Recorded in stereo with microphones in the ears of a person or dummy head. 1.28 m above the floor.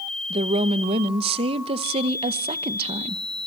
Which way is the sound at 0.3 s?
35° right (ahead or behind).